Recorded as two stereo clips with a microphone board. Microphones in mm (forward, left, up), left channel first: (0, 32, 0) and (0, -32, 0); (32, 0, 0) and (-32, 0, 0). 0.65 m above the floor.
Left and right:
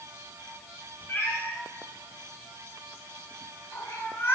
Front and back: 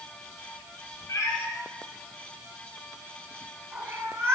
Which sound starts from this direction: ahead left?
A cat meowing, at 1.1 s.